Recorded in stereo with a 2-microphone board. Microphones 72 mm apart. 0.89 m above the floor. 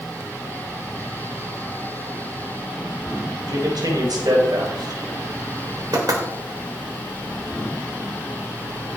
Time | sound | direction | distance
3.5 | a man speaking | 65° right (ahead or behind) | 4 m
5.9 | knocking | 65° right (ahead or behind) | 3.5 m